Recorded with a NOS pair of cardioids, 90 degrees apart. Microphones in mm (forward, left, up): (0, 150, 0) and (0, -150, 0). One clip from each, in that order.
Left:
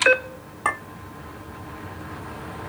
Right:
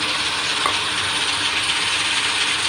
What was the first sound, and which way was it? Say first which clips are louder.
A clink: right 1 dB; 20° right.